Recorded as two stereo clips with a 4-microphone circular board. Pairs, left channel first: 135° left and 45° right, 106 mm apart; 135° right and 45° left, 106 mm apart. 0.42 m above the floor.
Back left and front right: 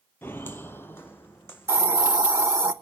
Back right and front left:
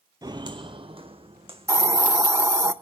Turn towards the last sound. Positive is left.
turn(degrees=5)